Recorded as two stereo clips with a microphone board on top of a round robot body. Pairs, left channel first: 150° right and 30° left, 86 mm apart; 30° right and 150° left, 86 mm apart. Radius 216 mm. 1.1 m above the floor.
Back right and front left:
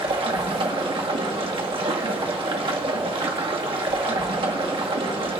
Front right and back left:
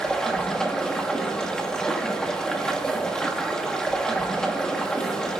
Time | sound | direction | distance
0.0 | running water | 50° left | 1.3 m